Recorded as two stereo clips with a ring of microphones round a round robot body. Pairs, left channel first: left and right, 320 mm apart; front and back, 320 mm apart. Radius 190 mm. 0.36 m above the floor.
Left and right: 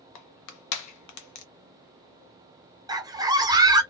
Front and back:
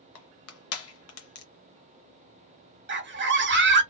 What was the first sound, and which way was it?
Crushing, 50° left.